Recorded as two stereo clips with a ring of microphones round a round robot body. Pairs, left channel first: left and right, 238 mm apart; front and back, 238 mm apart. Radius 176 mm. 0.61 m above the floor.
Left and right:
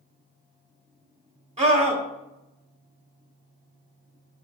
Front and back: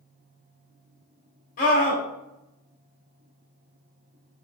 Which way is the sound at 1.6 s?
40° right.